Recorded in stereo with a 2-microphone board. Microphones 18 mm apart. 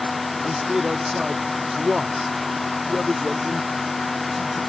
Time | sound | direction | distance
0.4 | a man speaking | 35° right (ahead or behind) | ?